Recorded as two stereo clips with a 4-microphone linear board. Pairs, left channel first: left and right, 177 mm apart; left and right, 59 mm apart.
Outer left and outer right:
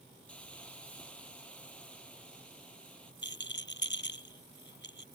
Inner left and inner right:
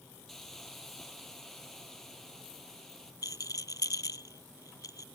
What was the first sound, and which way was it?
A hiss, 5° left (ahead or behind).